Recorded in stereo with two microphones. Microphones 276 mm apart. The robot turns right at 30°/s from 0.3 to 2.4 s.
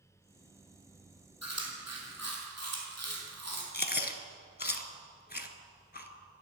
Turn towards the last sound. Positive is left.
turn(degrees=35)  # may be behind; listen again after turning